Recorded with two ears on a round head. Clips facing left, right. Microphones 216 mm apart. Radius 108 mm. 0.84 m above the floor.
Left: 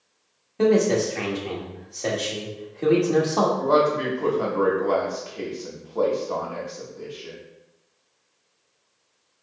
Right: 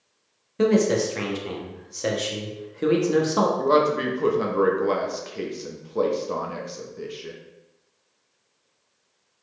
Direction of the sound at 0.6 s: 20° right (ahead or behind).